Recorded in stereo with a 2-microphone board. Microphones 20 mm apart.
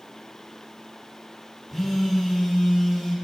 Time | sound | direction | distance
1.7 | a phone buzzing | 5° left (ahead or behind) | 4 m